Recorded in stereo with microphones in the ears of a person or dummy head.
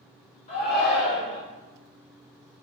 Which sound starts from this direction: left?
A shout, at 0.5 s.